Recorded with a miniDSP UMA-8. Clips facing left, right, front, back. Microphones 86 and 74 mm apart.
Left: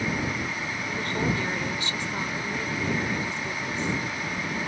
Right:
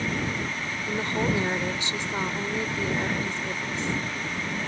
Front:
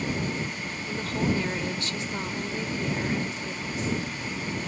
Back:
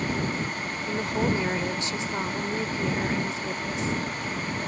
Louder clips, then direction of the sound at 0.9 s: Right 2 dB, back 2 dB; 135° right.